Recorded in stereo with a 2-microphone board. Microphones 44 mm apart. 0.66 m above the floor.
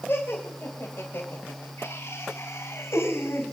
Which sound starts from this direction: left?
Laughter, at 0.1 s.